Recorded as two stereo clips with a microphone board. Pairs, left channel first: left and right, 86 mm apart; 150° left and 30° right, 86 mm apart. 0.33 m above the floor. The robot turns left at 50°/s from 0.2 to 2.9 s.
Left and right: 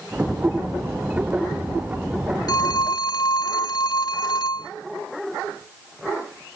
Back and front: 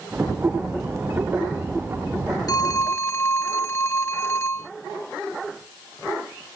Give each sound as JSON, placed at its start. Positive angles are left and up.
{"t": 2.5, "sound": "a phone ringing", "azimuth_deg": 115}